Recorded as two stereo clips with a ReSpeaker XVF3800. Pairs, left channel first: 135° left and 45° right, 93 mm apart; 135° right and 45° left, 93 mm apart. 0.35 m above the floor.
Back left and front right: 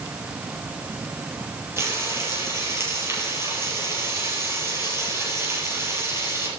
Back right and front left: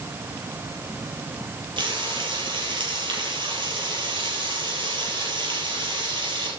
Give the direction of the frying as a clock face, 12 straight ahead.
12 o'clock.